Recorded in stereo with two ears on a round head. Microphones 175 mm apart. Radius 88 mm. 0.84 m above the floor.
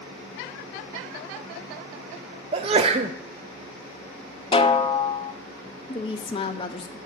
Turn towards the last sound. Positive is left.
turn(degrees=25)  # may be behind; listen again after turning